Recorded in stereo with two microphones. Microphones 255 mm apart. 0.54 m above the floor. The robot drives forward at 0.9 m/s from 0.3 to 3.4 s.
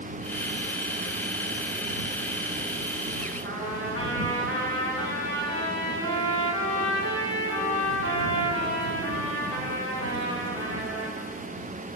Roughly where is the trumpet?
Right.